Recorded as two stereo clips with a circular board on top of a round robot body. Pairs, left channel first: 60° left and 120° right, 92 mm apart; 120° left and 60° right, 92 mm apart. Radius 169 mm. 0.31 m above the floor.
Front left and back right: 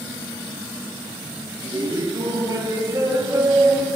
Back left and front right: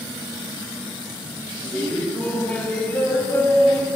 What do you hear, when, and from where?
1.6 s laughter: 165° right, 4 m; by 3.9 s 175° left, 2.5 m